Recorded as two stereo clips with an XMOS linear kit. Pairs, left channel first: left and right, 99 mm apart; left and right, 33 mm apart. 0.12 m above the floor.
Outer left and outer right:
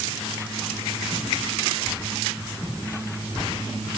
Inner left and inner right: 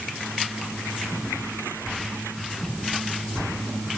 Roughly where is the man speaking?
I don't hear a man speaking.